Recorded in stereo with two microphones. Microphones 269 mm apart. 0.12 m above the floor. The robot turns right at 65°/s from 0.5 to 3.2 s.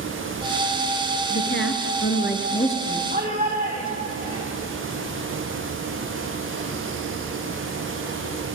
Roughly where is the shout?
Right.